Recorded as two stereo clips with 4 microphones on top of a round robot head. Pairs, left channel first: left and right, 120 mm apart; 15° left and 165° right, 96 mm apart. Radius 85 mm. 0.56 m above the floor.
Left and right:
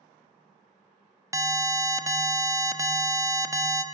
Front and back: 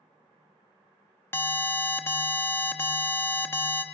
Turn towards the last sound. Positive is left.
turn(degrees=-40)